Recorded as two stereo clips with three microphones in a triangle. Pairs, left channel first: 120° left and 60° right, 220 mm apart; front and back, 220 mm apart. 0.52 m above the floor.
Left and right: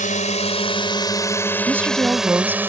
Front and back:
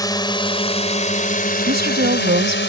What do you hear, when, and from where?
0.0 s a drone: 70° left; by 2.7 s 20° left
1.7 s a woman speaking: 140° right